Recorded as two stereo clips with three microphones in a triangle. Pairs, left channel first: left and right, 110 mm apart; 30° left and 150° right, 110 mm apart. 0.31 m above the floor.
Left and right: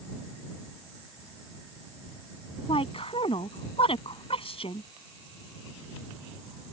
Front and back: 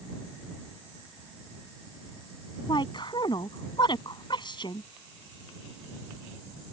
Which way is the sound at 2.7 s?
65° left.